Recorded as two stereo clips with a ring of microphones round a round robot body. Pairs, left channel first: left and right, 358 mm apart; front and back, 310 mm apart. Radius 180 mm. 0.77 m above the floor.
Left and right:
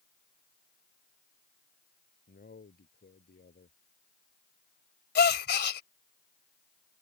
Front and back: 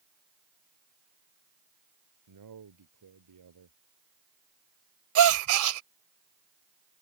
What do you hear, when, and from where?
2.3 s a man speaking: 155° left
5.2 s a gasp: 155° left